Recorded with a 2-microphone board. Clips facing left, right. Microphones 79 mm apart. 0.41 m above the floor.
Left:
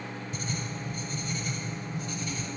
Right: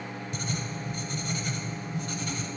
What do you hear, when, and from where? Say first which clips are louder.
0.3 s writing: right 2 dB; 75° right (ahead or behind), 0.7 m